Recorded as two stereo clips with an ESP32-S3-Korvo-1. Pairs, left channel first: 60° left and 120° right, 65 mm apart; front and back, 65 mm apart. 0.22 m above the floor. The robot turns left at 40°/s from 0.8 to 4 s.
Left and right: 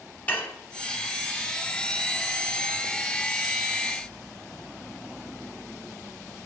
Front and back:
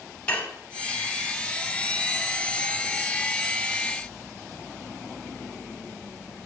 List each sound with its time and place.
0.3 s dishes clattering: 45° left, 0.8 m